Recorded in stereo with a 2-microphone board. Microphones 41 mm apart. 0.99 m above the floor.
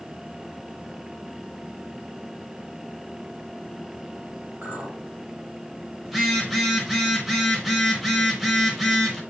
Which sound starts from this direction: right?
A clink, at 4.6 s.